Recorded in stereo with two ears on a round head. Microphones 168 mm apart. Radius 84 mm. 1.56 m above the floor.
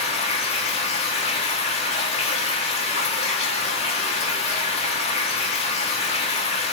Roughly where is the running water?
Left.